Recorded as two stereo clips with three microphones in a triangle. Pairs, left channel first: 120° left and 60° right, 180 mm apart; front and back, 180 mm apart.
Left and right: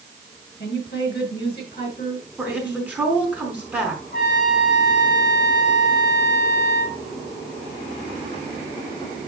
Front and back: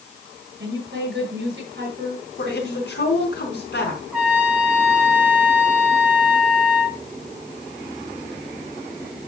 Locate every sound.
0.6 s a woman speaking: 155° left, 5.5 m
2.4 s a woman speaking: 20° left, 4.5 m
4.1 s a trumpet: 95° left, 3 m